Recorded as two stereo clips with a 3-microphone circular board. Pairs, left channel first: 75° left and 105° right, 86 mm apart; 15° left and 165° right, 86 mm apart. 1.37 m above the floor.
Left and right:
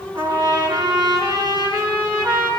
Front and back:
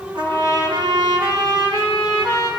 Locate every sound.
0.1 s a trumpet: 135° right, 6 m